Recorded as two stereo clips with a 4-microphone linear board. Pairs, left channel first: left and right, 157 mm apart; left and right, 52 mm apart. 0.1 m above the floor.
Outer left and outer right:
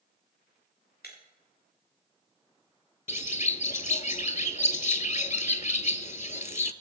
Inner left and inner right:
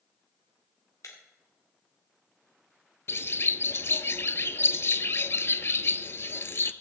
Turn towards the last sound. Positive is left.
turn(degrees=50)  # may be behind; listen again after turning